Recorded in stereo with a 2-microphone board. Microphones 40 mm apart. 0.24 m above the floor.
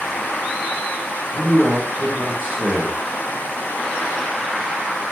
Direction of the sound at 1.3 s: 55° right (ahead or behind).